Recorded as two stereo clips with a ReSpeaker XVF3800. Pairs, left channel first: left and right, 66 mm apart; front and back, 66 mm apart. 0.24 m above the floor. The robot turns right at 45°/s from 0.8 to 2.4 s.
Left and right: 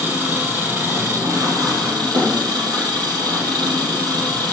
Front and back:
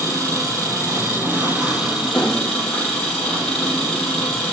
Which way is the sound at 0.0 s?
150° right.